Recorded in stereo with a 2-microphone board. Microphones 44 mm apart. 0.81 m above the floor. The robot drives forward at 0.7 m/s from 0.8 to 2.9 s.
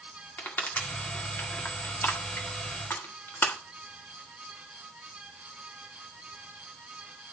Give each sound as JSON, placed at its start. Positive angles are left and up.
{"t": 0.4, "sound": "crushing", "side_deg": 50, "distance_m": 1.9}